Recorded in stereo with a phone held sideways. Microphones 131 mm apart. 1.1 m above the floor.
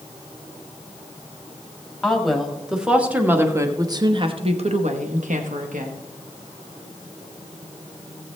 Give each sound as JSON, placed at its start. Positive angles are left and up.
{"t": 2.0, "sound": "a woman speaking", "side_deg": 5, "distance_m": 1.9}